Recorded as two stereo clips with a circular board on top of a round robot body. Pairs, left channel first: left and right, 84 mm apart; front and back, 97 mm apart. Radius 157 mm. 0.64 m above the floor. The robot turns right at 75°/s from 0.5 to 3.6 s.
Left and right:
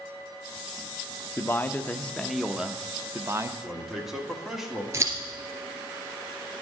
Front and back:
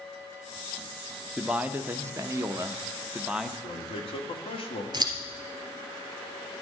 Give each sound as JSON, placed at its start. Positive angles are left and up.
{"t": 1.4, "sound": "a man speaking", "azimuth_deg": 105, "distance_m": 0.8}
{"t": 3.6, "sound": "a man speaking", "azimuth_deg": -5, "distance_m": 1.8}
{"t": 4.9, "sound": "scissors", "azimuth_deg": -140, "distance_m": 2.5}